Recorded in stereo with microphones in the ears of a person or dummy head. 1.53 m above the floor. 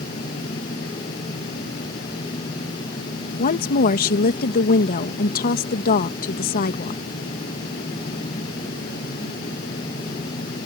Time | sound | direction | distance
3.4 | a woman speaking | 50° left (ahead or behind) | ?